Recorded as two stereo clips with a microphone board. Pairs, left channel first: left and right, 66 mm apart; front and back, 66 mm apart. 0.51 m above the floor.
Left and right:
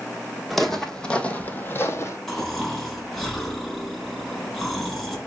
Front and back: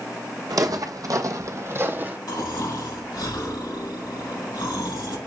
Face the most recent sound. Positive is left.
turn(degrees=5)